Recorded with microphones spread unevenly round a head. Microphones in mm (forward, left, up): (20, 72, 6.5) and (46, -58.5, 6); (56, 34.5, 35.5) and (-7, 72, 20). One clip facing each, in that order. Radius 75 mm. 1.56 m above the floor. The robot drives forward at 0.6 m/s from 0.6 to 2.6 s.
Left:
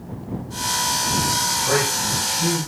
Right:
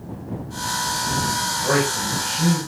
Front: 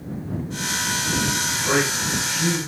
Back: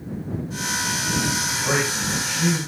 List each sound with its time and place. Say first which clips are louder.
1.6 s a man speaking: right 2 dB, front 2 dB; 135° right, 6.5 m; by 2.6 s 140° right, 7 m